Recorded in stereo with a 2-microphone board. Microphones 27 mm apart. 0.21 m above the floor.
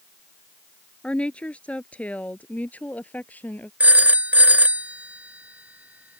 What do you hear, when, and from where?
1.0 s a woman speaking: 40° left (ahead or behind); by 3.7 s 65° left (ahead or behind)
3.8 s a phone ringing: 65° right (ahead or behind)